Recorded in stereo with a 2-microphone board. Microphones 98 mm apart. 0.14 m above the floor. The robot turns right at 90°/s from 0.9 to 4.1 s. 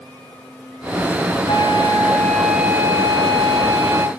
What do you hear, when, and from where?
1.5 s a flute: 90° left, 0.6 m; by 4.1 s 35° right, 0.6 m